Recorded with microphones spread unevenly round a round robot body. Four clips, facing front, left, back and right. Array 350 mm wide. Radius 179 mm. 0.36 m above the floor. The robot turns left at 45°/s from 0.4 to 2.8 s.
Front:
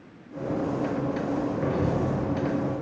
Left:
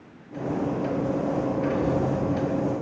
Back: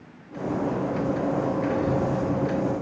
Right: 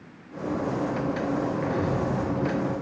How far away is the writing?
About 6 m.